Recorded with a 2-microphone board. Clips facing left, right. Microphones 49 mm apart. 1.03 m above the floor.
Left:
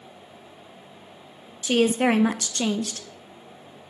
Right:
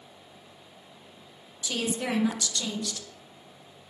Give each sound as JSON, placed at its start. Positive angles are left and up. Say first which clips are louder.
{"t": 1.6, "sound": "a woman speaking", "louder": "left 10 dB", "side_deg": 50, "distance_m": 0.5}